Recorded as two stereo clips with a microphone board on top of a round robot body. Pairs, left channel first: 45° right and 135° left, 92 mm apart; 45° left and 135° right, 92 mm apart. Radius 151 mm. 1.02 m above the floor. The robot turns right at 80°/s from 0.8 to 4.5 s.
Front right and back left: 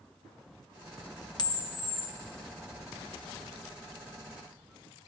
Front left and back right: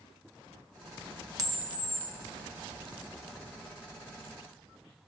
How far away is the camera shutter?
About 0.6 m.